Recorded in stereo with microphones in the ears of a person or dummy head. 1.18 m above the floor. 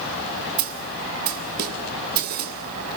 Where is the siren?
I don't hear a siren.